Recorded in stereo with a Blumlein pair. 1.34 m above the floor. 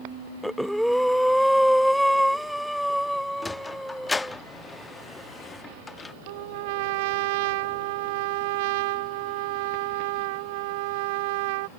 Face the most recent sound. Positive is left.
turn(degrees=-50)